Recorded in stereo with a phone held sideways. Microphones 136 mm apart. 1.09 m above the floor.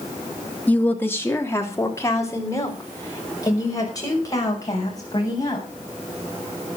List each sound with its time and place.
0.7 s a woman speaking: 10° left (ahead or behind), 1.7 m; by 5.7 s 30° left (ahead or behind), 8.5 m